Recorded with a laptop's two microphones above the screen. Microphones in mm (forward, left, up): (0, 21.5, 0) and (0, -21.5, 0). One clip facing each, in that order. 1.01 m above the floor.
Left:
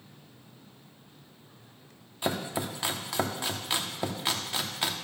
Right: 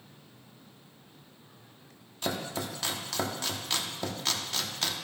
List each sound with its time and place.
2.2 s chopping: 20° left (ahead or behind), 1.1 m